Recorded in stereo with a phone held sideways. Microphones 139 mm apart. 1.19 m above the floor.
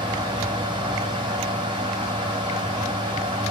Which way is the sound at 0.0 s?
35° right (ahead or behind).